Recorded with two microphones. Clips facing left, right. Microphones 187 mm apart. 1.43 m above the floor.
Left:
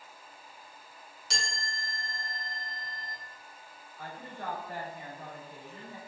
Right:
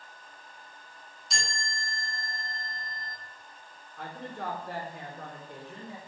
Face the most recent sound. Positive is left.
turn(degrees=-80)